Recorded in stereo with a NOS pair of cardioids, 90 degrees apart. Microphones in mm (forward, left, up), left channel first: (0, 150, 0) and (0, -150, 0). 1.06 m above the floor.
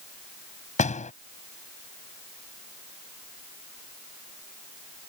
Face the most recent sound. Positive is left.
turn(degrees=20)